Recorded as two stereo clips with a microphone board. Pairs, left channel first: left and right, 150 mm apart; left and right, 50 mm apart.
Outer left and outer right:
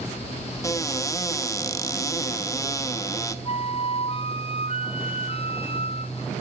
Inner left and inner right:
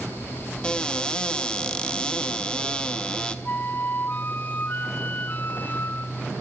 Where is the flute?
35° left (ahead or behind), 0.6 m.